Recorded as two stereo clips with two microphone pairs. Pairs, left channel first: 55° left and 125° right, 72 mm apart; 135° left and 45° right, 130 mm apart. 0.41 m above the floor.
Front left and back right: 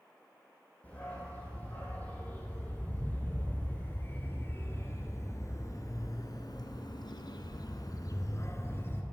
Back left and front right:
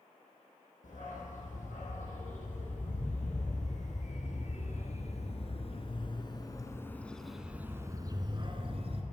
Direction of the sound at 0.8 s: 125° left.